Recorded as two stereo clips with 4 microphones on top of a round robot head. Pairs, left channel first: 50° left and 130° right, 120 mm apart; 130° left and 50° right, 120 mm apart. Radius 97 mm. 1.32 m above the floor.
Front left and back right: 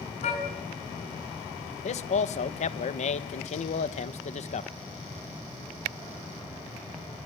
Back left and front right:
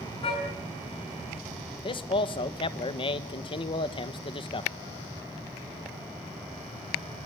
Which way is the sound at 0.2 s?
80° left.